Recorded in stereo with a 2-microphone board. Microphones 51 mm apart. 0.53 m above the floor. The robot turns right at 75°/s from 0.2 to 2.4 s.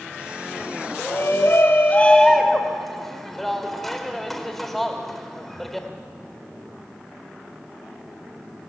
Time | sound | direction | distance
1.0 | a shout | 65° left | 2.5 m